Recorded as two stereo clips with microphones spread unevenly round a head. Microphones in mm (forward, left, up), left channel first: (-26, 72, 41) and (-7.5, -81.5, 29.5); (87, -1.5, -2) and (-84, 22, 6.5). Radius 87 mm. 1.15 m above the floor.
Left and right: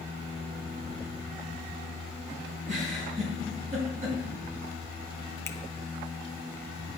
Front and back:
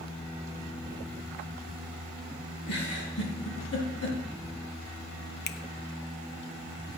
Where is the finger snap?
25° left, 0.5 m.